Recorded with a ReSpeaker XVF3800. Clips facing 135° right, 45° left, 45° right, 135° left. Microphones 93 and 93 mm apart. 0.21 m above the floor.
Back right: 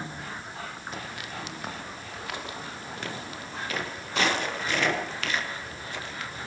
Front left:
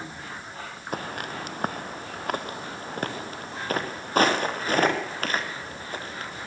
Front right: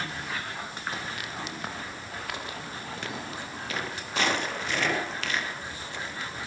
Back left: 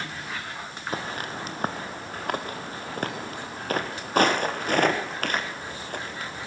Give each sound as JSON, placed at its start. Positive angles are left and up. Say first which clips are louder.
{"t": 0.9, "sound": "footsteps", "louder": "front left 5 dB, back left 4 dB", "azimuth_deg": 85, "distance_m": 2.0}